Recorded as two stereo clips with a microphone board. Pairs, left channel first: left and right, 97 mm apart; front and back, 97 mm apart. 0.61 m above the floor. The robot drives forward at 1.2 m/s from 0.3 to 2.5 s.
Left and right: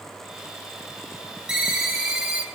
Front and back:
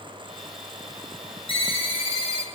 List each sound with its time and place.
1.5 s a ringtone: 5° right, 1.7 m; by 2.4 s 15° right, 0.6 m